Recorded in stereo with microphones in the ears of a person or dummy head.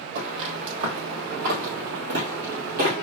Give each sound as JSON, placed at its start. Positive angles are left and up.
{"t": 0.1, "sound": "footsteps", "side_deg": -45, "distance_m": 1.9}